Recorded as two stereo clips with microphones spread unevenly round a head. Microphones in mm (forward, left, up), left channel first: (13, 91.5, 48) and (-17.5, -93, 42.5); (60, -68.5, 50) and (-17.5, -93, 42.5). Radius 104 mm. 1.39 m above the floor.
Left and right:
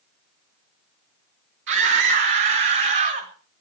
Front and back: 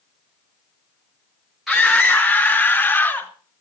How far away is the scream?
About 2 m.